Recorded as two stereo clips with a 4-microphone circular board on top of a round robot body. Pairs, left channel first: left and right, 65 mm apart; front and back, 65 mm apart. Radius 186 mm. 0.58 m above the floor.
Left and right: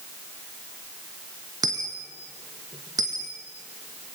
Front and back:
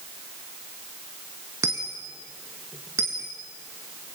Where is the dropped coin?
125° right, 0.7 m.